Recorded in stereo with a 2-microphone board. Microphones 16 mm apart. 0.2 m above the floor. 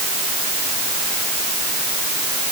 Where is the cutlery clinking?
I don't hear cutlery clinking.